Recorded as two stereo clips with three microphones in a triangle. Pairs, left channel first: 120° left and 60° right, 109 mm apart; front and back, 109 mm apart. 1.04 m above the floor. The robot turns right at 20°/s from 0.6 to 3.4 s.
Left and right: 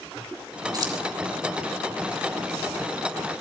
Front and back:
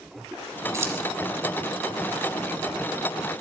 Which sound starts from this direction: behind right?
Keys jangling, at 0.7 s.